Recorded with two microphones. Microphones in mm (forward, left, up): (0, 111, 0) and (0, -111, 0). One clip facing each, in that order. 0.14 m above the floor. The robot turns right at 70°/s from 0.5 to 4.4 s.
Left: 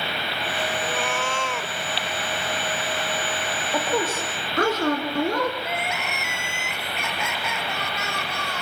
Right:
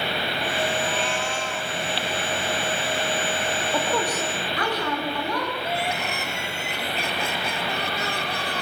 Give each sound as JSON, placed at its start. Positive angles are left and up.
{"t": 0.8, "sound": "a cat meowing", "azimuth_deg": 45, "distance_m": 0.9}
{"t": 3.7, "sound": "a woman speaking", "azimuth_deg": 0, "distance_m": 4.5}
{"t": 5.6, "sound": "crying", "side_deg": -35, "distance_m": 4.0}